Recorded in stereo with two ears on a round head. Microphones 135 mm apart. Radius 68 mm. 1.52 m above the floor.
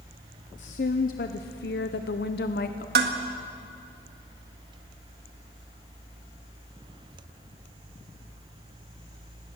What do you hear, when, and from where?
0.6 s a woman speaking: 55° left (ahead or behind), 1.0 m; by 2.9 s 60° left (ahead or behind), 1.2 m
3.0 s dishes clattering: 70° right (ahead or behind), 1.7 m